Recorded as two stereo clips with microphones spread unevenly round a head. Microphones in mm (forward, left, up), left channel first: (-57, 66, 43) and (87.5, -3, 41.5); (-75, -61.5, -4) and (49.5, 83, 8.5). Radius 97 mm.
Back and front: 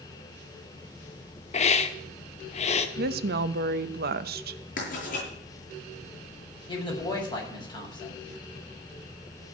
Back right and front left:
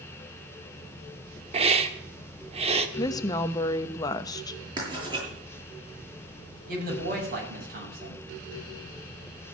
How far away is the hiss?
About 1.3 m.